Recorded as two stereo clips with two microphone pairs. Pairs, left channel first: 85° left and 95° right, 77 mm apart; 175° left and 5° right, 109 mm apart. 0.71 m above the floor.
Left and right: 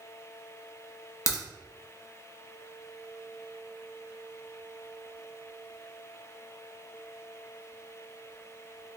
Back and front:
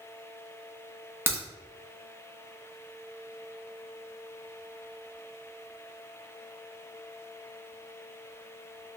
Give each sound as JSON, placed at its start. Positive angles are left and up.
{"t": 1.3, "sound": "a crack", "azimuth_deg": 60, "distance_m": 1.0}